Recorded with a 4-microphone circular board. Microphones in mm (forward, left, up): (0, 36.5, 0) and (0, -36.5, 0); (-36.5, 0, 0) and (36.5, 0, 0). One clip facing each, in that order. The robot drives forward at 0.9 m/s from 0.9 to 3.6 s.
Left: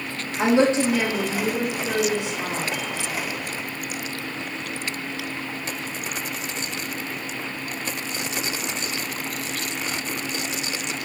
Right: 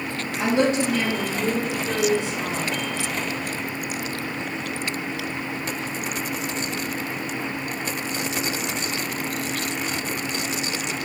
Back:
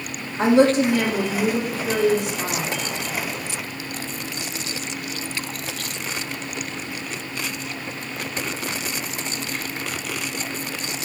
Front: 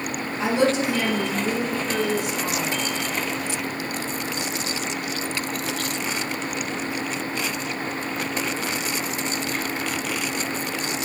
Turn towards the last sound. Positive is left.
turn(degrees=165)